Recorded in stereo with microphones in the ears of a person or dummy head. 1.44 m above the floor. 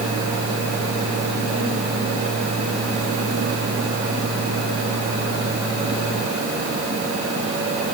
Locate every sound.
Only background noise.